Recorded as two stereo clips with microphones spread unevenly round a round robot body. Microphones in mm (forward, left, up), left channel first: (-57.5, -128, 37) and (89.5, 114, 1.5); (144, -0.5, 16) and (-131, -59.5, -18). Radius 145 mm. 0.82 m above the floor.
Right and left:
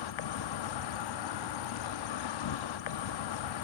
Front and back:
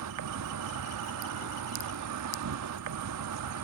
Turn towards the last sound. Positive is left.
turn(degrees=-135)